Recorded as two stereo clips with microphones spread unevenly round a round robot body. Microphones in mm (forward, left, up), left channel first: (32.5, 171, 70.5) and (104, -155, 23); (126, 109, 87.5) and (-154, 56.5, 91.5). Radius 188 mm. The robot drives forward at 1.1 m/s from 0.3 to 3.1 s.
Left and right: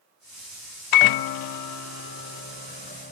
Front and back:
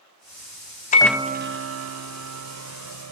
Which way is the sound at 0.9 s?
75° left.